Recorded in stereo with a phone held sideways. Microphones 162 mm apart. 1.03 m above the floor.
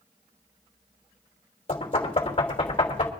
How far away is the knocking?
About 3 m.